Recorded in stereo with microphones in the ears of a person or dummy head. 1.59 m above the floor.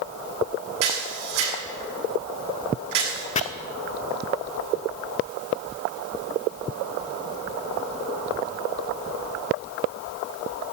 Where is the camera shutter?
70° right (ahead or behind), 7.5 m.